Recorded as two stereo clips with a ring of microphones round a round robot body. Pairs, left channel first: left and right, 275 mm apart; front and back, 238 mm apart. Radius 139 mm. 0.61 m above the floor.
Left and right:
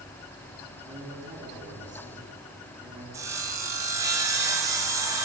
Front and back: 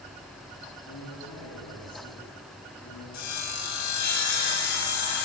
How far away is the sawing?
About 4 m.